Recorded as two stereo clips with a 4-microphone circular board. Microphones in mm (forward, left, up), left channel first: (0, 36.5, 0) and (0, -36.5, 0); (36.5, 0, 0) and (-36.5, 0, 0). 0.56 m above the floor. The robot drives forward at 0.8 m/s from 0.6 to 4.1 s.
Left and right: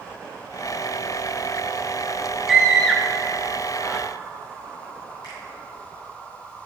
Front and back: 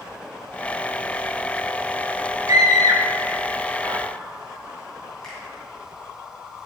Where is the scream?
Straight behind, 1.4 m.